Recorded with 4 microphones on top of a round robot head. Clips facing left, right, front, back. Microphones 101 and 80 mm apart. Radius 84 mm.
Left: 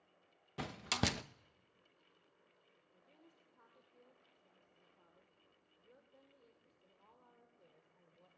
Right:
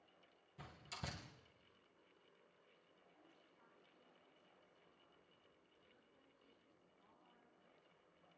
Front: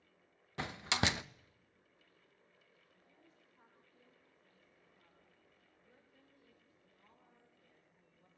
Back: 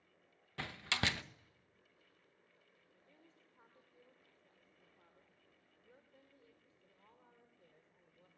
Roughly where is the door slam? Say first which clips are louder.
Left 14 dB, front 3 dB; left.